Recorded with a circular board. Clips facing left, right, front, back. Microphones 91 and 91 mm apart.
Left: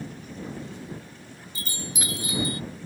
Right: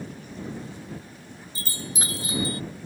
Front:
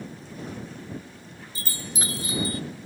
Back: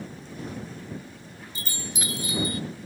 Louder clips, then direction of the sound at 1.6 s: Even, front 1 dB; 45° right.